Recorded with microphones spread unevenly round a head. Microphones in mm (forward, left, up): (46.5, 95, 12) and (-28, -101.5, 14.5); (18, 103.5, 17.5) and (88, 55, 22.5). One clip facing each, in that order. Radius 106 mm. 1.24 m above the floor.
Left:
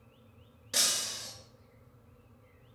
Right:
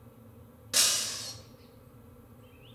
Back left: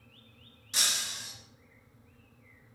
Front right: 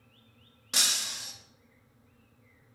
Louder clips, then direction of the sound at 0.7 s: Even, front right 1 dB; 25° right.